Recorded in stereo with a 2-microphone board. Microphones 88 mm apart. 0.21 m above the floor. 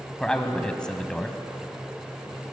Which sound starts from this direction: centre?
A man speaking, at 0.2 s.